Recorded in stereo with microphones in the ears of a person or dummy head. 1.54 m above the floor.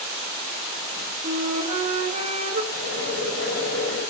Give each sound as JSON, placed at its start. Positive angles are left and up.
{"t": 1.2, "sound": "a flute", "side_deg": -40, "distance_m": 1.1}
{"t": 2.7, "sound": "boiling", "side_deg": 80, "distance_m": 6.0}